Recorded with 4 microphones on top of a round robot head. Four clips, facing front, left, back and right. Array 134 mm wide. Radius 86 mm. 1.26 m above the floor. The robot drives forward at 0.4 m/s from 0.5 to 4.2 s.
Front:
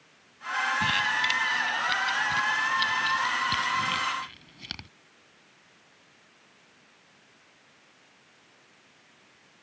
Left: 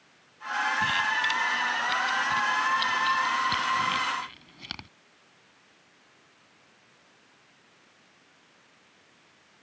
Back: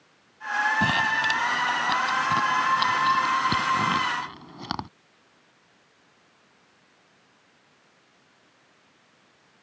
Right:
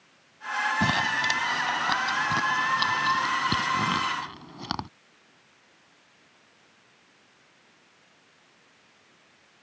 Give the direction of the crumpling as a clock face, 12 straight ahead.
4 o'clock.